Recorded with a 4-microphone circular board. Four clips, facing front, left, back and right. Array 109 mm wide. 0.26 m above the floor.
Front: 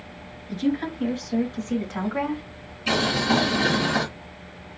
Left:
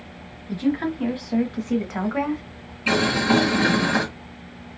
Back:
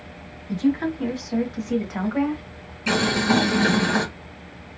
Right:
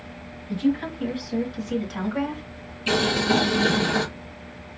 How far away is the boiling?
About 2 m.